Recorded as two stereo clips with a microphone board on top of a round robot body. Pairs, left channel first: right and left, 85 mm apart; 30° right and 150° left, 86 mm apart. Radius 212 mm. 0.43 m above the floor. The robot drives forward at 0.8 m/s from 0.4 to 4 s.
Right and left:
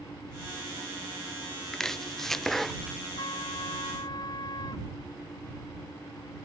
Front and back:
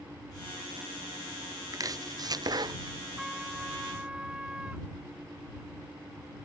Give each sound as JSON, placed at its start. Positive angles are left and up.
{"t": 1.7, "sound": "chopping", "azimuth_deg": -175}
{"t": 3.2, "sound": "a trumpet", "azimuth_deg": -120}